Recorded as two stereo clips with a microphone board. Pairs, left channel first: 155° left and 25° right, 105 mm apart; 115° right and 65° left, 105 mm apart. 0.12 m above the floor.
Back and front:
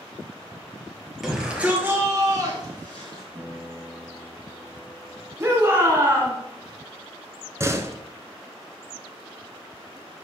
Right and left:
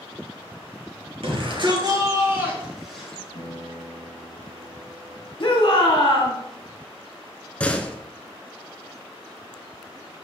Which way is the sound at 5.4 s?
80° right.